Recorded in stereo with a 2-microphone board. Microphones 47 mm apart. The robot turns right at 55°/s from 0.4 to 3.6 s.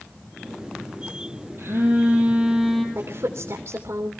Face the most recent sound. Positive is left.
turn(degrees=-80)